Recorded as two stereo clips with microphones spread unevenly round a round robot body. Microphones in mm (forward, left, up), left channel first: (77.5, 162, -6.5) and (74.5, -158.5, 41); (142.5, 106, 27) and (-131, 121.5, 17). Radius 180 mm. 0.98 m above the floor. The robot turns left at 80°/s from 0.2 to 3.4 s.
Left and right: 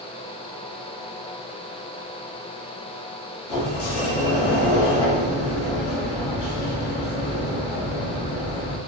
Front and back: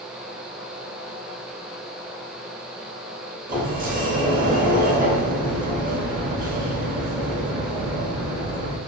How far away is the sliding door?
About 0.9 m.